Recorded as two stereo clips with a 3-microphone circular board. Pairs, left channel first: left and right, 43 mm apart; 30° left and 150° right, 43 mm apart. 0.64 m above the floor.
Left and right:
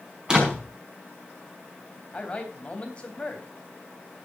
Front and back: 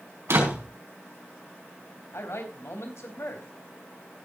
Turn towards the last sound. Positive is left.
turn(degrees=25)